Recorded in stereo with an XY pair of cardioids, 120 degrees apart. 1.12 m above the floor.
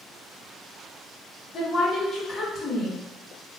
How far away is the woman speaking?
About 0.9 m.